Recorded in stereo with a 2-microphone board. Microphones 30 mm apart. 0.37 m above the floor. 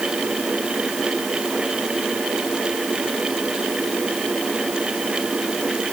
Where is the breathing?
No breathing in this recording.